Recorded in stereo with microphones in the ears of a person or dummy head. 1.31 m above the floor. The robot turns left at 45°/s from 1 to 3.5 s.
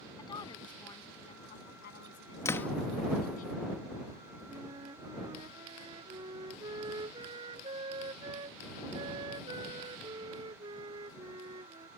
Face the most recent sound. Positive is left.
turn(degrees=-25)  # may be behind; listen again after turning